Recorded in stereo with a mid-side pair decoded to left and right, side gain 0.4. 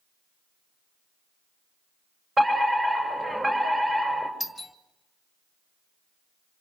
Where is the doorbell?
5° right, 2.5 m.